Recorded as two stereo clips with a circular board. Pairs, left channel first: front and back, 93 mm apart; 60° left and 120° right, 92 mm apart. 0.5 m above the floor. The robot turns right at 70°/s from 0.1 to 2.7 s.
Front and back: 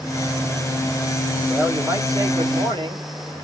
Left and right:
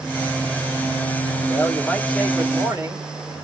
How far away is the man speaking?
About 1.9 m.